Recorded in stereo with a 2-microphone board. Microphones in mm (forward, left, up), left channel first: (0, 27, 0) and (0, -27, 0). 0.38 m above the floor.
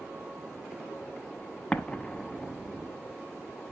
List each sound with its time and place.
1.7 s an explosion: 15° left (ahead or behind), 0.9 m